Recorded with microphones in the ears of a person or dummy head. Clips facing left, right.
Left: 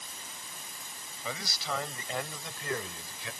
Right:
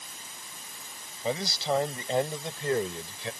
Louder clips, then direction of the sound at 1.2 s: Right 9 dB; 25° right (ahead or behind).